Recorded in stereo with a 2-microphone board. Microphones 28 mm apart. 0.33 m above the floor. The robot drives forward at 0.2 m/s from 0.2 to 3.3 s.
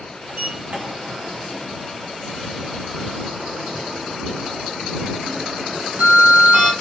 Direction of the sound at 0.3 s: 65° right (ahead or behind).